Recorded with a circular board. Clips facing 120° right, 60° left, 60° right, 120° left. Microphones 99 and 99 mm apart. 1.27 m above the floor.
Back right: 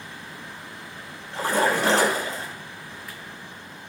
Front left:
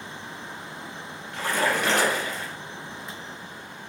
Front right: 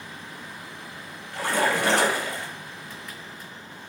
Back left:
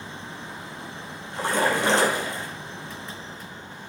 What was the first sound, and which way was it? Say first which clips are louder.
A splash: back right 3 dB, back left 1 dB; 175° right.